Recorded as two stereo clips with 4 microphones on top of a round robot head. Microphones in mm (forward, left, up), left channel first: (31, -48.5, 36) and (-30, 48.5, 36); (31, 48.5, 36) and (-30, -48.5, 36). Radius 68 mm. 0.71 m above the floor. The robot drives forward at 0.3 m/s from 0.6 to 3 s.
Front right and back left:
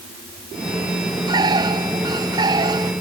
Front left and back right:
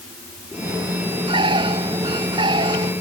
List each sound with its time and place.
1.3 s a bird: 175° right